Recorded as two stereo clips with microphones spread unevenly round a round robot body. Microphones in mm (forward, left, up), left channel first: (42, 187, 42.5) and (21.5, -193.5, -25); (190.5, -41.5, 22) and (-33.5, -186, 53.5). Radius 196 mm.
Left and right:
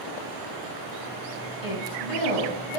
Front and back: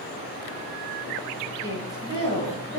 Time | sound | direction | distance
1.6 | a woman speaking | 110° left | 4 m